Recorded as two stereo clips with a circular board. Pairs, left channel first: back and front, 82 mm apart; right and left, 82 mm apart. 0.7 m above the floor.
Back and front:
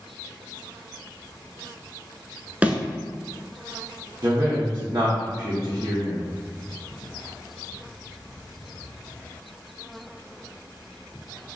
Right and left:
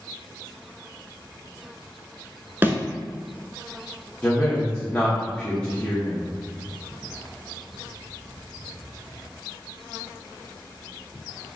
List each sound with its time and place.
2.6 s a thud: 55° left, 0.7 m
4.2 s a man speaking: 20° right, 1.2 m